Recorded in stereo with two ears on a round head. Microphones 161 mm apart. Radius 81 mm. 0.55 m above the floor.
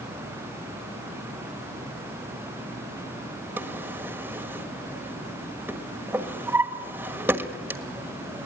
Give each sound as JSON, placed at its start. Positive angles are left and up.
{"t": 3.6, "sound": "a drawer", "side_deg": -10, "distance_m": 1.4}